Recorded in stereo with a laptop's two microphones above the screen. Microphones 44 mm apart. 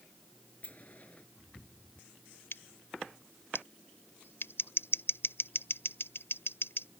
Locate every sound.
0.6 s a sliding door: 35° left (ahead or behind)
2.5 s scissors: 65° left (ahead or behind)